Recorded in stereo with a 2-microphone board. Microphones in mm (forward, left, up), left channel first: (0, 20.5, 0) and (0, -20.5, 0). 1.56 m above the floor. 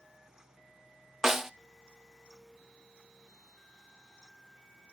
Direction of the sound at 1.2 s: 15° right (ahead or behind).